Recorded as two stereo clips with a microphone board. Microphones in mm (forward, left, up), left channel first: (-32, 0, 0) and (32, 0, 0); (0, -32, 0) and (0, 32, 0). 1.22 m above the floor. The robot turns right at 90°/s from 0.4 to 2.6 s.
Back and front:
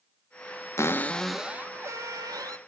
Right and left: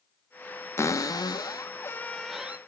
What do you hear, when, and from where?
0.8 s a cupboard door: 140° right, 1.0 m; by 2.6 s 25° left, 1.0 m